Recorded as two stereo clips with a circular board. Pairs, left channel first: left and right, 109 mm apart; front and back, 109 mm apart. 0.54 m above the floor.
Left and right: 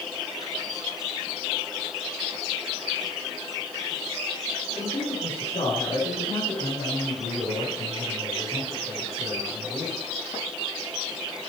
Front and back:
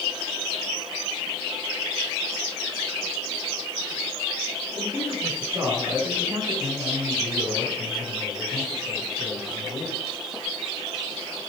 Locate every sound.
4.8 s a man speaking: 120° left, 6 m